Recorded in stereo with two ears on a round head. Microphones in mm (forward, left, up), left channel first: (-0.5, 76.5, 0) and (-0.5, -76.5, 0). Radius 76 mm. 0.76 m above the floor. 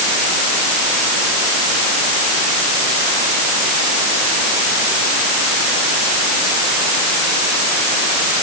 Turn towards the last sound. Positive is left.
No sound to turn to.